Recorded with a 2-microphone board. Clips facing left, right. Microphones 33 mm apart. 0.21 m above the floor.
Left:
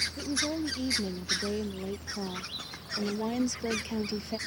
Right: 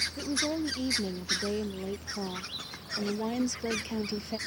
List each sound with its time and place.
0.2 s a woman speaking: 15° right (ahead or behind); by 4.4 s centre (ahead or behind)